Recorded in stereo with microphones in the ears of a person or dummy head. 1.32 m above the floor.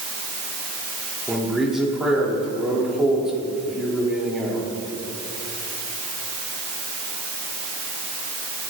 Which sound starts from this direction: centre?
A man speaking, at 1.3 s.